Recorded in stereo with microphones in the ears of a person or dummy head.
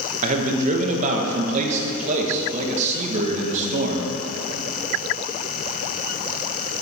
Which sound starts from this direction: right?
A man speaking, at 0.2 s.